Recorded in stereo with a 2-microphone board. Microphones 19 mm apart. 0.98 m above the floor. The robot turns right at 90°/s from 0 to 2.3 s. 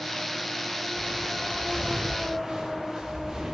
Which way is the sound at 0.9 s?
75° left (ahead or behind).